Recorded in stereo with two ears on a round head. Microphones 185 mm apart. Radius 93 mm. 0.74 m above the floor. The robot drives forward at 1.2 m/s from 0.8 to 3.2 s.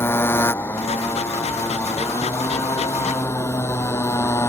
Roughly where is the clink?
I don't hear a clink.